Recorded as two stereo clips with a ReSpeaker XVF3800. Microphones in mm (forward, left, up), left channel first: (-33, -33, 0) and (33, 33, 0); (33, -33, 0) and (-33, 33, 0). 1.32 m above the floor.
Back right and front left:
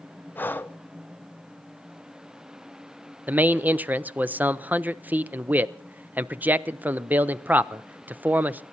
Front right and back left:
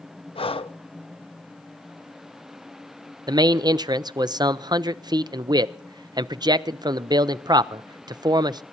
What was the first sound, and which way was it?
Breathing, 65° right.